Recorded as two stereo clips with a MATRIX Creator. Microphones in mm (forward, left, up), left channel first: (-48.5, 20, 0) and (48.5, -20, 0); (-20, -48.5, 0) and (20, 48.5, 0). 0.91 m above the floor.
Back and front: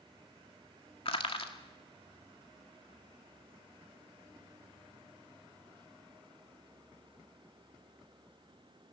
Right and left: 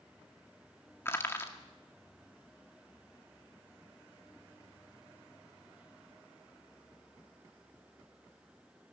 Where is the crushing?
Straight behind, 2 m.